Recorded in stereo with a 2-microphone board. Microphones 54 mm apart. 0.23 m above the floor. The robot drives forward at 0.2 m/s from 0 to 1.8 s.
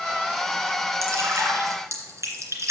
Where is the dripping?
65° right (ahead or behind), 2 m.